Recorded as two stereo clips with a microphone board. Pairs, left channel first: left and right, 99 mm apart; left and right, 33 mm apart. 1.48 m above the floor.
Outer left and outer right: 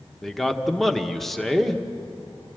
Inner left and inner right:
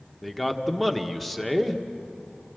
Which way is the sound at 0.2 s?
Centre (ahead or behind).